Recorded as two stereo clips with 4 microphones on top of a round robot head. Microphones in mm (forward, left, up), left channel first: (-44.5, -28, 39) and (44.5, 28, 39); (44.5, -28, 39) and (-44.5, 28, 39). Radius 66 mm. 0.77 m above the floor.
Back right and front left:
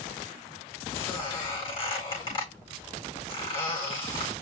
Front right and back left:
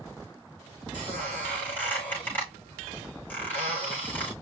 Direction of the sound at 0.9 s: 105° right.